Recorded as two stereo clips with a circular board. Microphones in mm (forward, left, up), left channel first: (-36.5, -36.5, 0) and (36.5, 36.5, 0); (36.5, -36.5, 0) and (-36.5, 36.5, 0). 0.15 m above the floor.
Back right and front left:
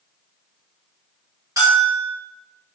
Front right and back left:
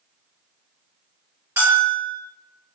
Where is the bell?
85° left, 1.7 m.